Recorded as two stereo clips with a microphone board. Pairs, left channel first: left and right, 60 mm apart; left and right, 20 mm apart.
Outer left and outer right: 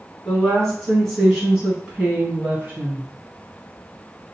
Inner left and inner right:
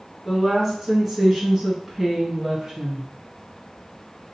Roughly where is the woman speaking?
Centre.